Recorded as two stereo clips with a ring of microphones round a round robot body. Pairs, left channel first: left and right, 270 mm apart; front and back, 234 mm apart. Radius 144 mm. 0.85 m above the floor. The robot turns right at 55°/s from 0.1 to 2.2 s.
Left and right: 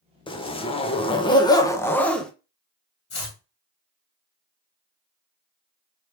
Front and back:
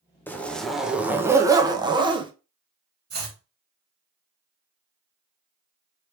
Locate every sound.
0.3 s a zipper: 65° left, 0.8 m; by 2.3 s 170° left, 0.8 m
3.1 s chopping: 140° left, 2 m